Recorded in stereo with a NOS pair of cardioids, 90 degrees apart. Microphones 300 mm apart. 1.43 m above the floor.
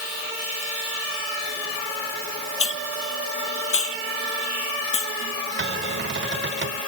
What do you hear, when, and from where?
2.6 s a hiss: 50° left
5.6 s a cupboard door: 40° right